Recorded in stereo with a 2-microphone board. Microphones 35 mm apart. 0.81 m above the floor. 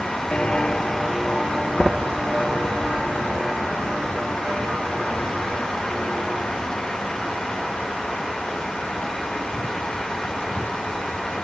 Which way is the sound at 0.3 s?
40° left (ahead or behind).